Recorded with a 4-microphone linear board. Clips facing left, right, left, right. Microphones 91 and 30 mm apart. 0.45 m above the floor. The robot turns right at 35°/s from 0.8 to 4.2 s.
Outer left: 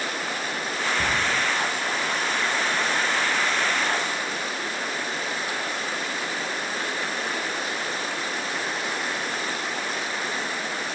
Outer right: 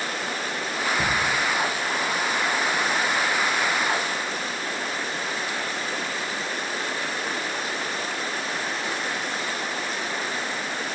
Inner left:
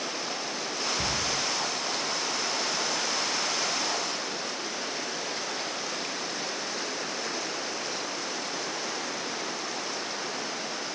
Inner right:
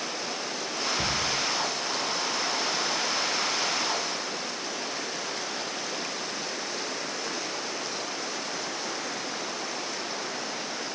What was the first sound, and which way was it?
A cupboard door, 5° right (ahead or behind).